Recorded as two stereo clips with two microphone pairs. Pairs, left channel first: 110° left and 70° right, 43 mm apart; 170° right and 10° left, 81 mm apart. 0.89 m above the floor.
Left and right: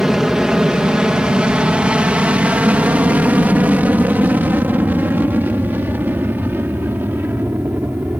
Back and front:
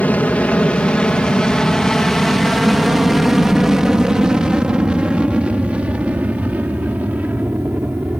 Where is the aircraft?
135° right; by 8.2 s 55° right.